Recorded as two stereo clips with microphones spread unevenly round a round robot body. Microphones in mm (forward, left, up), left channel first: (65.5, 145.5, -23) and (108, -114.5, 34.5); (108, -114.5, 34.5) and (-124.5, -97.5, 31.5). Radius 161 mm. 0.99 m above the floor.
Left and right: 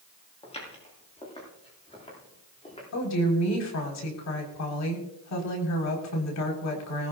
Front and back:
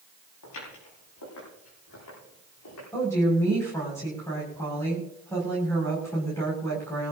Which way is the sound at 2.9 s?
80° left.